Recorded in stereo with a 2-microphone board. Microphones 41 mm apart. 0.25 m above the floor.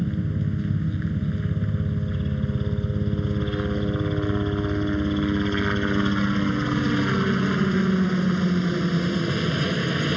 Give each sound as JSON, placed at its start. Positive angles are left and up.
{"t": 0.0, "sound": "a helicopter", "side_deg": -5}